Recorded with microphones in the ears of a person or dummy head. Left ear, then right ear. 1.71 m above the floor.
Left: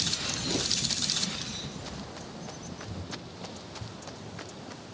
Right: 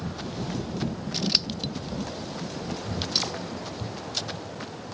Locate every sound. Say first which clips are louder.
1.1 s scissors: right 7 dB; 55° right (ahead or behind)